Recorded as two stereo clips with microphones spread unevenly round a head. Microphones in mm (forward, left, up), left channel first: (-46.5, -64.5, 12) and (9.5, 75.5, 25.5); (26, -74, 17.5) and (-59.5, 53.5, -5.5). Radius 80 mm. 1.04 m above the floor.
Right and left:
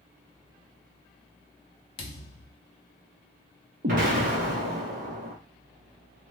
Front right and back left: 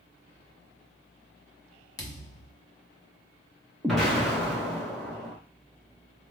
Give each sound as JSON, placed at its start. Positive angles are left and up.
{"t": 2.0, "sound": "a thud", "azimuth_deg": -80, "distance_m": 0.6}
{"t": 3.8, "sound": "an explosion", "azimuth_deg": 35, "distance_m": 1.0}